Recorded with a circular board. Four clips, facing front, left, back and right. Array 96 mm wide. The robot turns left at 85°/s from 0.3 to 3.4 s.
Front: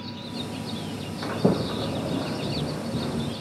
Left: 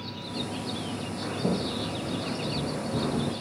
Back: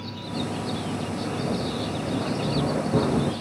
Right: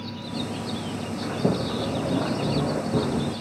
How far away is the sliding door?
About 1.0 m.